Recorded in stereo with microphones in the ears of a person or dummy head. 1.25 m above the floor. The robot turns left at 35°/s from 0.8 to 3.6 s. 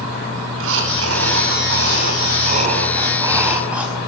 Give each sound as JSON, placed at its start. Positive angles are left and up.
{"t": 0.5, "sound": "breathing", "azimuth_deg": -80, "distance_m": 5.0}